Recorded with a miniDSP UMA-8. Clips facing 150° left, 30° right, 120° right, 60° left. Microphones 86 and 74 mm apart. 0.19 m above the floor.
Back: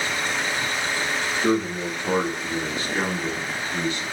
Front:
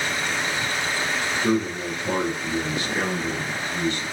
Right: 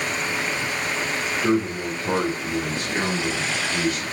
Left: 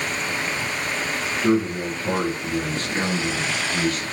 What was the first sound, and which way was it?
A man speaking, 165° left.